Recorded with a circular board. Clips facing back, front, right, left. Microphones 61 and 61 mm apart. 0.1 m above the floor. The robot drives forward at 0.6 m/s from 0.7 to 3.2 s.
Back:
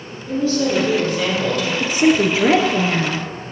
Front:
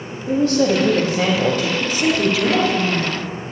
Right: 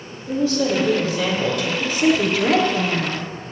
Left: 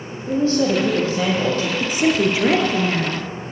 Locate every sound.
0.3 s a woman speaking: 40° left, 4 m; by 1.7 s 45° left, 3.5 m
1.8 s a woman speaking: 135° left, 1.6 m; by 3.3 s 160° left, 2 m